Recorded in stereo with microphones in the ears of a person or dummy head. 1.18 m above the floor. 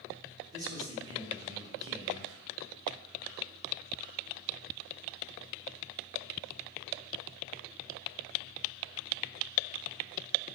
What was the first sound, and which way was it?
A man speaking, 20° right (ahead or behind).